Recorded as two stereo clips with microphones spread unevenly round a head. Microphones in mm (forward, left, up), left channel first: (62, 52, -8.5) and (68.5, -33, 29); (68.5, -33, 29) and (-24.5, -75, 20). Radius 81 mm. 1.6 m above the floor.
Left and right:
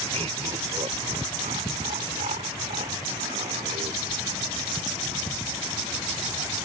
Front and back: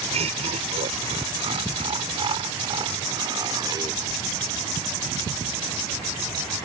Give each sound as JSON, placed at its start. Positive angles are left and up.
{"t": 0.1, "sound": "laughter", "azimuth_deg": -135}